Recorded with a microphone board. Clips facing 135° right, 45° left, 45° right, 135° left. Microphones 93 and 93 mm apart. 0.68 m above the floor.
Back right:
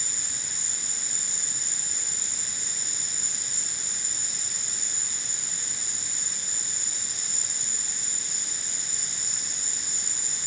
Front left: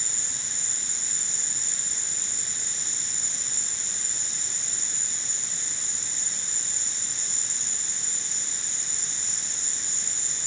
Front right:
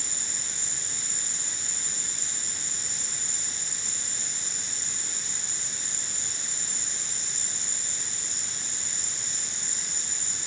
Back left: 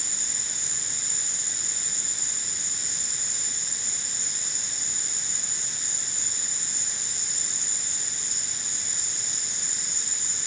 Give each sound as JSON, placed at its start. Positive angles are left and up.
{"t": 0.0, "sound": "an insect", "azimuth_deg": 150, "distance_m": 2.0}